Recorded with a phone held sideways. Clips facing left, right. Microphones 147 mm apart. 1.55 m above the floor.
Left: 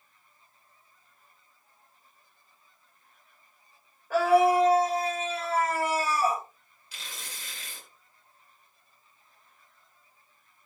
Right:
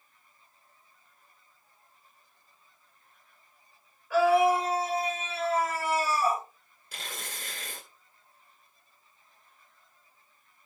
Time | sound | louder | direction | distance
4.1 | a scream | left 1 dB | 45° left (ahead or behind) | 6.5 m
6.9 | tearing paper | right 4 dB | 50° right (ahead or behind) | 2.5 m